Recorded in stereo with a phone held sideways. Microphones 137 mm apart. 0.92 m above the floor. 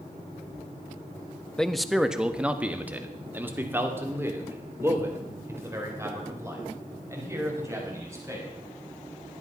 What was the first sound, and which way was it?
A man speaking, 5° left (ahead or behind).